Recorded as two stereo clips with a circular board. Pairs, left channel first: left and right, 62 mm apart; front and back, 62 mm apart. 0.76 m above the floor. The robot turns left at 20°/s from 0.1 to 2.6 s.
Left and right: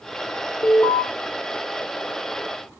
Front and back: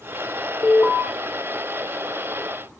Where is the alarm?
45° left, 3 m; by 1.0 s 35° left, 3 m.